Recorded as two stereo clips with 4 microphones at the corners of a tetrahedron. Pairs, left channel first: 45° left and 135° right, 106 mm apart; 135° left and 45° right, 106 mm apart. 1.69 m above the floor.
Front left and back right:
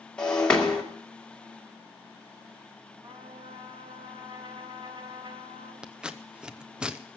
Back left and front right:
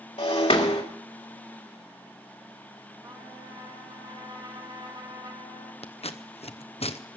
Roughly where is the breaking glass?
Behind left.